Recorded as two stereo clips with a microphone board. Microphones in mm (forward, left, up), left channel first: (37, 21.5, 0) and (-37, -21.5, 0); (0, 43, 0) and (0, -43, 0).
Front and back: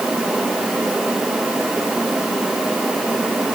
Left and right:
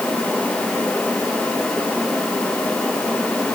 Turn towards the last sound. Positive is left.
No sound to turn to.